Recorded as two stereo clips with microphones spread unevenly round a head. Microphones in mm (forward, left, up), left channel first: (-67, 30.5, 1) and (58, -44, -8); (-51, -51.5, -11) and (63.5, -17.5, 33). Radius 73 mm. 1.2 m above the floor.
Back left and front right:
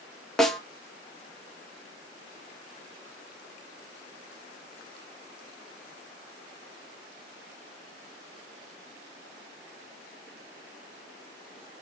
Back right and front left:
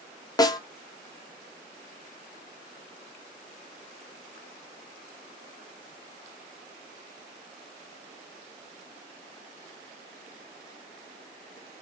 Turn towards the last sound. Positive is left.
turn(degrees=-120)